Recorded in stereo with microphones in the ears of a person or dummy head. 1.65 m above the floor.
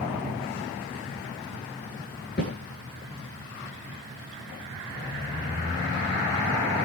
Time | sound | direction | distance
2.4 | a snare drum | 50° left (ahead or behind) | 4 m